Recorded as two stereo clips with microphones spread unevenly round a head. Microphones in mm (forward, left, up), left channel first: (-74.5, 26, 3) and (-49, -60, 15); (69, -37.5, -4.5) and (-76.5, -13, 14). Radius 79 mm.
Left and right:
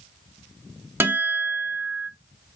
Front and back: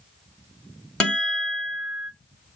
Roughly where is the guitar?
Right.